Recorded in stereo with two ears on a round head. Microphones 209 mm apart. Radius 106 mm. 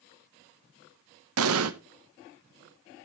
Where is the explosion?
70° right (ahead or behind), 0.9 m.